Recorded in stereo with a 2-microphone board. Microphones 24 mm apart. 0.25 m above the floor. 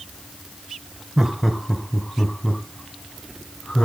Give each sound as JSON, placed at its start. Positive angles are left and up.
{"t": 1.2, "sound": "laughter", "side_deg": -25, "distance_m": 1.2}